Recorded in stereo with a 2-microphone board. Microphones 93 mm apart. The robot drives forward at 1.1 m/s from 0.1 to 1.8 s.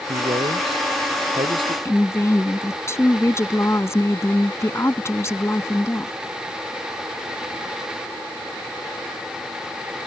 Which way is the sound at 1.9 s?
30° left (ahead or behind).